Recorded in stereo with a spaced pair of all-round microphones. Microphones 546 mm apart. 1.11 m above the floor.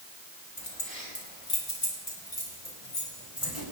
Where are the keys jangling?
70° left (ahead or behind), 4 m; by 3.6 s 60° left (ahead or behind), 5.5 m.